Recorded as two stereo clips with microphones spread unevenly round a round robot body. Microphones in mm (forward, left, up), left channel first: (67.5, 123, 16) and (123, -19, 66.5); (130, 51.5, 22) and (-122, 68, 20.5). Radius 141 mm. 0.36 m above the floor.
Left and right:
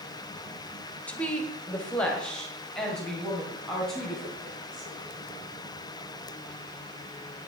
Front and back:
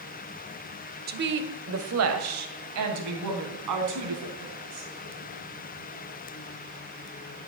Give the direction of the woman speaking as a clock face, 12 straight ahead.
7 o'clock.